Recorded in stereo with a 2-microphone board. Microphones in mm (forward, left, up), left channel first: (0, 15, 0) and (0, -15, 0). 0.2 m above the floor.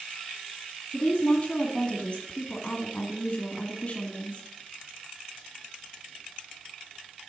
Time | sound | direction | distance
0.9 | a woman speaking | 30° left (ahead or behind) | 1.6 m